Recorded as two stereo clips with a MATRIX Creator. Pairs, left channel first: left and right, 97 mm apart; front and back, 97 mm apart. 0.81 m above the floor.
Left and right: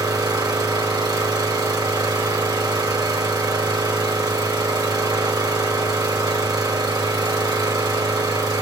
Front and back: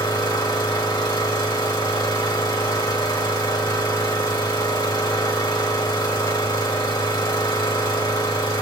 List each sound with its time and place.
0.0 s an engine running: 45° right, 2.5 m